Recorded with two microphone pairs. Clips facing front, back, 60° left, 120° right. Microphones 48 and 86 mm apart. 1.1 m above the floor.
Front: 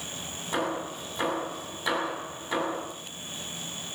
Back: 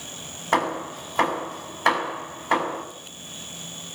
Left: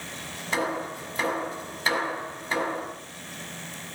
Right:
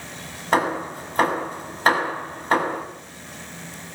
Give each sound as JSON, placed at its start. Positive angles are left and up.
{"t": 0.5, "sound": "hammering", "azimuth_deg": -150, "distance_m": 6.5}